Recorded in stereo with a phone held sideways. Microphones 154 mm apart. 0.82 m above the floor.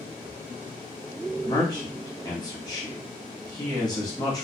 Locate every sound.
1.4 s a man speaking: 25° left (ahead or behind), 1.1 m